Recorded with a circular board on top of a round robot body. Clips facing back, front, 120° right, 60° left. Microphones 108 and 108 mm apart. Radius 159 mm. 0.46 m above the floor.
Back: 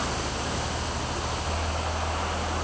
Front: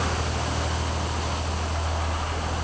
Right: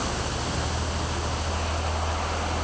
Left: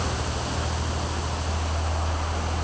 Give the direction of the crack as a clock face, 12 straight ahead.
No crack in this recording.